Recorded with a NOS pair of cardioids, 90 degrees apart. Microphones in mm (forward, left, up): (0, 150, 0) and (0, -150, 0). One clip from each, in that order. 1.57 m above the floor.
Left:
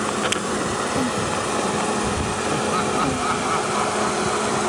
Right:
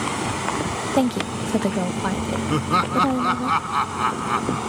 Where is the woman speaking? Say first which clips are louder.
Even; 55° right; by 3.5 s 60° right.